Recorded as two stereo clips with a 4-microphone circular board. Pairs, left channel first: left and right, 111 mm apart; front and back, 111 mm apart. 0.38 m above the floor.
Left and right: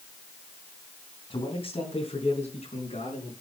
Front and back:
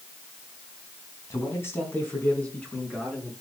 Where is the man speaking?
60° left, 3 m; by 3.3 s 85° left, 5 m.